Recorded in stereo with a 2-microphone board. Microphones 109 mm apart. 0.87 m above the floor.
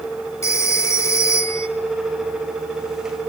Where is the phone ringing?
30° left (ahead or behind), 2.5 m.